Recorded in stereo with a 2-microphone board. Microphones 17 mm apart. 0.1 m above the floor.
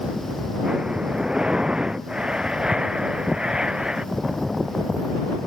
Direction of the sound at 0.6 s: 50° right (ahead or behind).